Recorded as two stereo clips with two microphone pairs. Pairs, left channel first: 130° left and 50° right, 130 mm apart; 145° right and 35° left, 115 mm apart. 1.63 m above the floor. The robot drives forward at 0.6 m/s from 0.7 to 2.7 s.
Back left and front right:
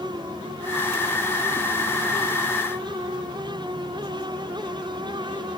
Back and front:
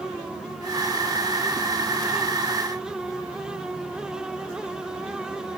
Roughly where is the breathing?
I don't hear breathing.